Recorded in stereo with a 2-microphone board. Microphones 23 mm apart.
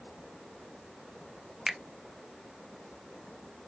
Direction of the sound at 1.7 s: 30° right (ahead or behind).